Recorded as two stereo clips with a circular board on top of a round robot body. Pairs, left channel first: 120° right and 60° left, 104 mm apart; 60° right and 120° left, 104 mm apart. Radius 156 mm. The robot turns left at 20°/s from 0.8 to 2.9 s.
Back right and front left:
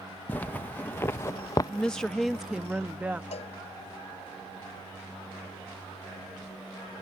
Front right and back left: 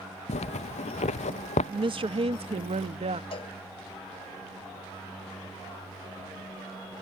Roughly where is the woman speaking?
Behind.